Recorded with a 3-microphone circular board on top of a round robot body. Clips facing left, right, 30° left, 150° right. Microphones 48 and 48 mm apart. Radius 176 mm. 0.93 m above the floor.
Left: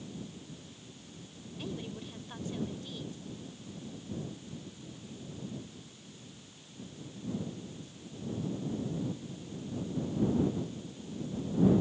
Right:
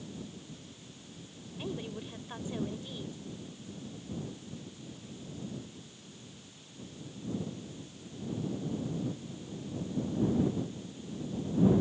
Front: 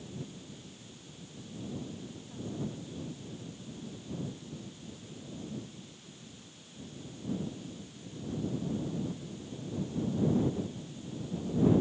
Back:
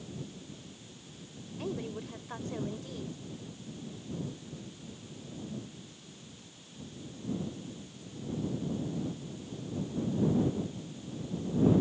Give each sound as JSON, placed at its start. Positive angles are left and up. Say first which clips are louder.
{"t": 1.6, "sound": "a woman speaking", "louder": "right 2 dB, back 5 dB", "azimuth_deg": -165}